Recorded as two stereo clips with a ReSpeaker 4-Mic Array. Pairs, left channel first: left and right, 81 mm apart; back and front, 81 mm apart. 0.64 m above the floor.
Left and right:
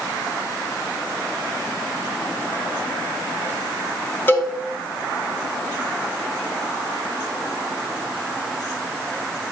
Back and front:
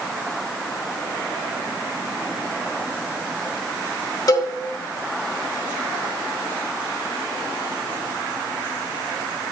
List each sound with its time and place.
4.3 s a cowbell: 150° left, 1.7 m